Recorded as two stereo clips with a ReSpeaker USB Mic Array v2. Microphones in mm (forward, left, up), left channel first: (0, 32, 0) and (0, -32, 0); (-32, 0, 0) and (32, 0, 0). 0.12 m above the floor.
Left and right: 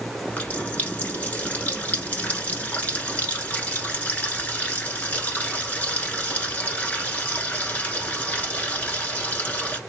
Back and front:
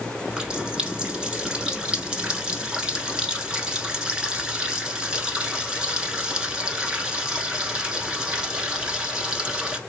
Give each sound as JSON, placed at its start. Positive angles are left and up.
{"t": 0.3, "sound": "a running tap", "azimuth_deg": 60, "distance_m": 0.9}